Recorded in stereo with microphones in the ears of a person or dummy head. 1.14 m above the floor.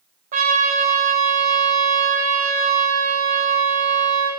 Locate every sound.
0.3 s a trumpet: 40° right (ahead or behind), 0.9 m